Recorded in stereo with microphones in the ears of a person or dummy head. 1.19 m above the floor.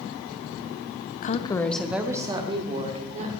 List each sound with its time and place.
1.2 s a woman speaking: 45° left (ahead or behind), 0.9 m; by 3.3 s 35° right (ahead or behind), 3 m